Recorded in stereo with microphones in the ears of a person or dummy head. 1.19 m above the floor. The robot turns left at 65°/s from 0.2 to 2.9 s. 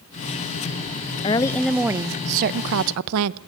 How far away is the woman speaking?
About 0.7 m.